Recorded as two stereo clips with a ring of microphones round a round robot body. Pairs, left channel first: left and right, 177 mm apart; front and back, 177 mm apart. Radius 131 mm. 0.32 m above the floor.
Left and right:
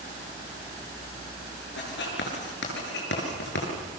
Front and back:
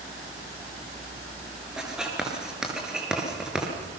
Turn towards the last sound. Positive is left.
turn(degrees=95)